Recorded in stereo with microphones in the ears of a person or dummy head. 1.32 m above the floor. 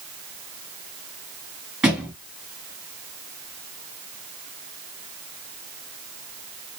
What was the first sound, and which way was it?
A thud, 5° right (ahead or behind).